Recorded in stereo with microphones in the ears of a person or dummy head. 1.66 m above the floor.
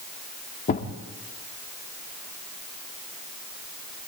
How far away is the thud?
About 1.9 m.